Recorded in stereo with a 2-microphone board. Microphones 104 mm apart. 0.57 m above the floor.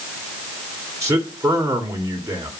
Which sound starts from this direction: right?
A man speaking, at 1.0 s.